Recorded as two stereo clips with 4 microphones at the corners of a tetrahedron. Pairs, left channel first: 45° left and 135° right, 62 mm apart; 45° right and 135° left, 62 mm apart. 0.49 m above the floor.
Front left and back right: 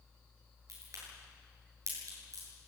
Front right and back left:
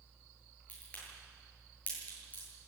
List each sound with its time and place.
0.7 s a crack: 110° right, 9.5 m